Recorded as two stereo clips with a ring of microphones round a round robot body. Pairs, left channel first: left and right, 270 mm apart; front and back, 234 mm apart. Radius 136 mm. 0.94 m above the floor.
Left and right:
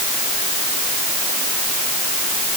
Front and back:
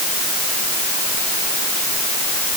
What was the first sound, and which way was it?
Only background noise.